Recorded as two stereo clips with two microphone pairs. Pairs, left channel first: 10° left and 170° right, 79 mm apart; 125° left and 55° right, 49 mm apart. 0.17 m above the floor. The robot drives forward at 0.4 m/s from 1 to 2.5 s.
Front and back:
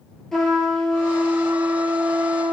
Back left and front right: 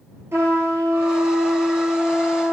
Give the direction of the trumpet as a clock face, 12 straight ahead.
3 o'clock.